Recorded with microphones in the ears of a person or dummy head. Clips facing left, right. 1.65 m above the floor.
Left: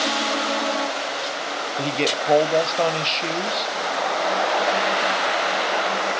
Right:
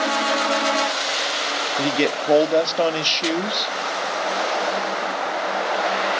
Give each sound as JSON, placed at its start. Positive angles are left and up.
{"t": 1.8, "sound": "a man speaking", "side_deg": -15, "distance_m": 0.6}